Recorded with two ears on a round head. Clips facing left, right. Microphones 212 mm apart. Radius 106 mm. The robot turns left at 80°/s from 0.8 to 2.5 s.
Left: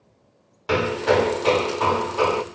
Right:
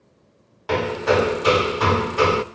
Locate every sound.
0.7 s hammering: 5° left (ahead or behind), 0.7 m; by 2.4 s 25° right (ahead or behind), 0.7 m